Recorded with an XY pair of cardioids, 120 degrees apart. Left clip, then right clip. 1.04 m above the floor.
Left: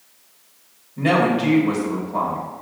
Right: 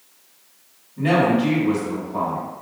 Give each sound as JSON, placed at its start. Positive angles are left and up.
{"t": 1.0, "sound": "a woman speaking", "azimuth_deg": 20, "distance_m": 1.9}